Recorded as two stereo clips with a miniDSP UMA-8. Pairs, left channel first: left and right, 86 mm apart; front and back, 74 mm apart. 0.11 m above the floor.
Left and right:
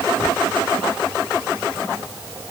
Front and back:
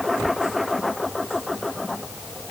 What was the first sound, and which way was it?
Only background noise.